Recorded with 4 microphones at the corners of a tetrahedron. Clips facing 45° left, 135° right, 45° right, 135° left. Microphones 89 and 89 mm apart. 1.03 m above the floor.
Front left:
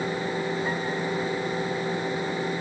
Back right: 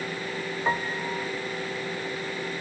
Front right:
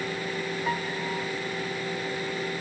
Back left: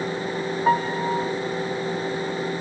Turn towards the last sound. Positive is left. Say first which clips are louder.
# even, back left 12 dB
turn(degrees=180)